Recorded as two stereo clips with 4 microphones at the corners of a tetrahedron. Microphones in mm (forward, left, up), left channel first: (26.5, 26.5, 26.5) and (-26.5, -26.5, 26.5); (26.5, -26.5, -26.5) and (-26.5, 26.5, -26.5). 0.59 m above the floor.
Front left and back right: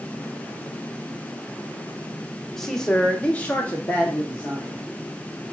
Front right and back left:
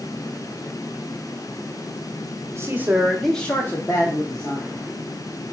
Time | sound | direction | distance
2.5 | a man speaking | 130° left | 0.9 m